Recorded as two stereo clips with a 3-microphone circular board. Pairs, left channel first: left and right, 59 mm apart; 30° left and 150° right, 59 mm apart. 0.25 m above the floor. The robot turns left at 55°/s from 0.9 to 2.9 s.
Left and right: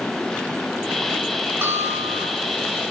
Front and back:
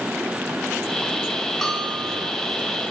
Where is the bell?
50° right, 3 m; by 2.3 s 90° right, 3 m.